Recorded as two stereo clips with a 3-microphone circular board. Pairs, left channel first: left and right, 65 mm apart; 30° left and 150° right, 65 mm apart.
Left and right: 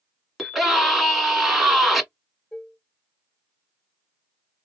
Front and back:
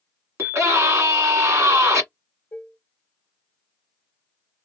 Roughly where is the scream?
Behind.